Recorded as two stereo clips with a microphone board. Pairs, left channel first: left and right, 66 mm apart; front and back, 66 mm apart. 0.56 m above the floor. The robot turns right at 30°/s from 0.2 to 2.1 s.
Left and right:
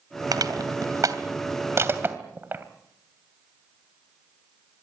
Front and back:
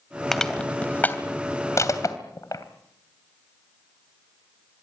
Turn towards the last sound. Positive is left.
turn(degrees=-35)